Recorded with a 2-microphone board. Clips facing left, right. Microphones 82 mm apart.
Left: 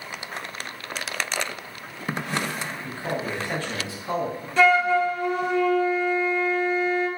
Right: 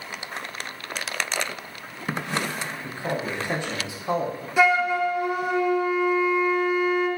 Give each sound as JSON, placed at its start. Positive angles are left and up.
{"t": 2.8, "sound": "a man speaking", "side_deg": -20, "distance_m": 0.7}
{"t": 4.6, "sound": "a flute", "side_deg": -10, "distance_m": 0.5}